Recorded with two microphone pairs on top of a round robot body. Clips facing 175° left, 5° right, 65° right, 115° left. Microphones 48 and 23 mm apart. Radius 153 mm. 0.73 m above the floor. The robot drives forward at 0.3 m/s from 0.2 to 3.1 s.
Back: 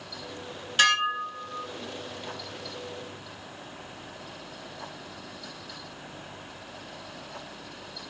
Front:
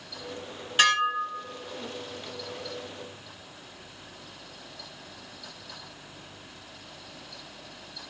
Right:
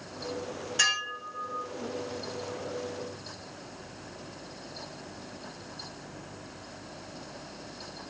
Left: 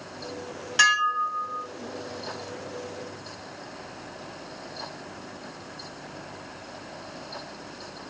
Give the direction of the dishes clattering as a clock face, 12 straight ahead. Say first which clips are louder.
Even, left 8 dB; 10 o'clock.